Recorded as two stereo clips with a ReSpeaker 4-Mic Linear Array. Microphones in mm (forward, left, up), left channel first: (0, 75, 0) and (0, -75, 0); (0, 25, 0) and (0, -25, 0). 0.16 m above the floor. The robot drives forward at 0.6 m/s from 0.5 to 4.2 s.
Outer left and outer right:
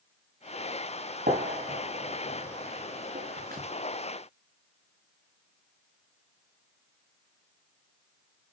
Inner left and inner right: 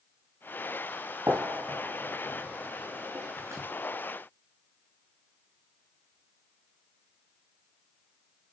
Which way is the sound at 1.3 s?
85° right.